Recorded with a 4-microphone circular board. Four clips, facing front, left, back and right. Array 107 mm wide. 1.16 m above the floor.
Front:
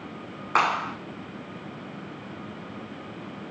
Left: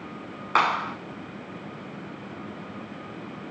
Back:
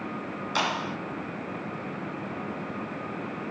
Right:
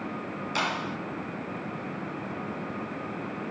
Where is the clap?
50° left, 2.5 m.